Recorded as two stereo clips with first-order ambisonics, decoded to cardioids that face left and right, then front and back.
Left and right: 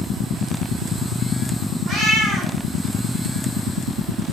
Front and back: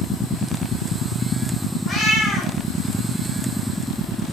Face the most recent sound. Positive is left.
turn(degrees=-45)